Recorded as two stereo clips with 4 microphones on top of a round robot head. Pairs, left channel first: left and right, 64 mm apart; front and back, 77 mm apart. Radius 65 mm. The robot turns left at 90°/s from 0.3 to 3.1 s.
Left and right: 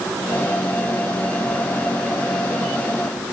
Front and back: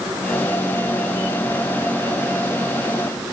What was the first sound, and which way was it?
Only background noise.